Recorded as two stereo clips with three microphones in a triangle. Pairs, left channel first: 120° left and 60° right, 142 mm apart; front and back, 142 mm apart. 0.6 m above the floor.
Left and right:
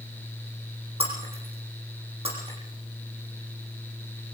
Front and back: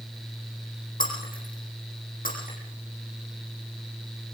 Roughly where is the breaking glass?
Ahead.